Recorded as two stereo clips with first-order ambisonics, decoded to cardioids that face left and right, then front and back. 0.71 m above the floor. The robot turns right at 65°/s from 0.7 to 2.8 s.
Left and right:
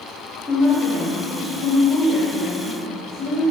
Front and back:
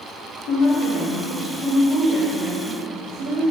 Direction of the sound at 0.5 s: 10° left.